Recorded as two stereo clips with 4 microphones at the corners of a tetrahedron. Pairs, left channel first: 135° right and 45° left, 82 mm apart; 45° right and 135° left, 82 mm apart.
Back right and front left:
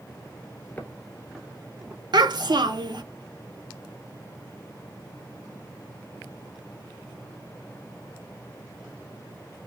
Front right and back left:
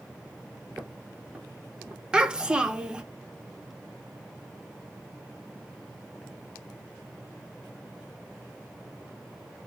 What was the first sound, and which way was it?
Footsteps, 165° right.